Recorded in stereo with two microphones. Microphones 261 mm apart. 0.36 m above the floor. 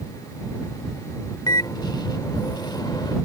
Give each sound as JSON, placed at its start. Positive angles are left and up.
{"t": 1.5, "sound": "a microwave", "side_deg": 15}